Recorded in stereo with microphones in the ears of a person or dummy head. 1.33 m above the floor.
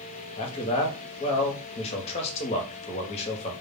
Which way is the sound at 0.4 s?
35° left (ahead or behind).